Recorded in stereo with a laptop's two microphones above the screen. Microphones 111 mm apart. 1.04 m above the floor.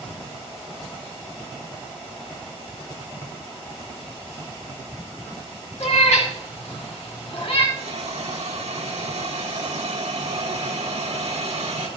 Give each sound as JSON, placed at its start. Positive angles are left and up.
{"t": 5.8, "sound": "a cat meowing", "side_deg": 70, "distance_m": 2.0}
{"t": 7.8, "sound": "a hiss", "side_deg": -80, "distance_m": 1.7}